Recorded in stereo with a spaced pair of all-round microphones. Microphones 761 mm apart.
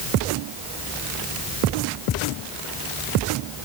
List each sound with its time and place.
Only background noise.